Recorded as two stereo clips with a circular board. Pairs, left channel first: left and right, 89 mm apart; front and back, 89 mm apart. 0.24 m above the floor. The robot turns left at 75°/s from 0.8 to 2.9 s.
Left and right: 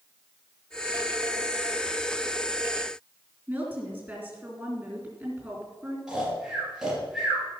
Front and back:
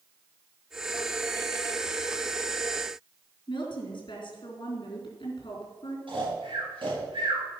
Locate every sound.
3.5 s a woman speaking: 20° right, 4 m
6.1 s snoring: 175° right, 5.5 m